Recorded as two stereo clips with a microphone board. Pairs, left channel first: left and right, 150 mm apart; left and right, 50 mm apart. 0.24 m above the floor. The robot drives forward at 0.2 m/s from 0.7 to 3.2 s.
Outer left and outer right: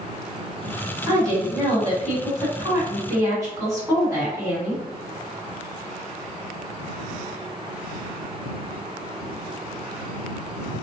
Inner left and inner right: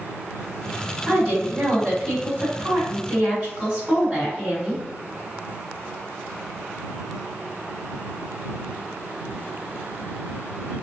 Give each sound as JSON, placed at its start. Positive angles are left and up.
{"t": 1.1, "sound": "a woman speaking", "side_deg": -25, "distance_m": 1.6}